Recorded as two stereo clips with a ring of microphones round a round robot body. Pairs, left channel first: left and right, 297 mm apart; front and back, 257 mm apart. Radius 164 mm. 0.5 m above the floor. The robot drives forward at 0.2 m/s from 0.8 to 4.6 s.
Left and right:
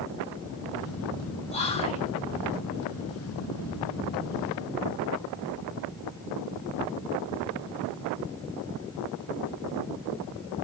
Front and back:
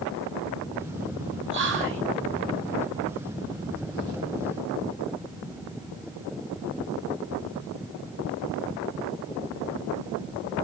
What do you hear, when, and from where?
1.5 s whispering: 155° left, 1.0 m